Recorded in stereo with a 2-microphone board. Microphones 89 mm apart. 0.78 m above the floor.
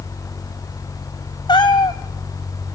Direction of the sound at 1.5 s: 50° left (ahead or behind).